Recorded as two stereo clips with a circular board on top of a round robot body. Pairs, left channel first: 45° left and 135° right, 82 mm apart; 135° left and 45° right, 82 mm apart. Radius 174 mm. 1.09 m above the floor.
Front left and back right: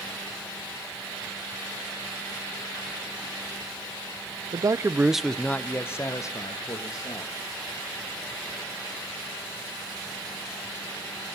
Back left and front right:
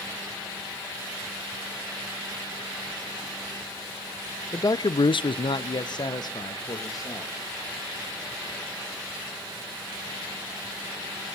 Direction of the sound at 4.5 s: 170° right.